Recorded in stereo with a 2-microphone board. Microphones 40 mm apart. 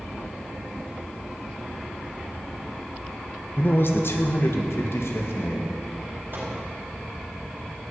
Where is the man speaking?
50° left (ahead or behind), 1.3 m; by 5.7 s 70° left (ahead or behind), 2 m.